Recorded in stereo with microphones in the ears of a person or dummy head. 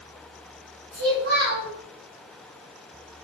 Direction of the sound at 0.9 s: 50° right (ahead or behind).